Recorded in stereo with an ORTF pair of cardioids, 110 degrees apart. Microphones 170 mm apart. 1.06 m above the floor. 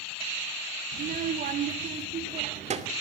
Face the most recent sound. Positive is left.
turn(degrees=-40)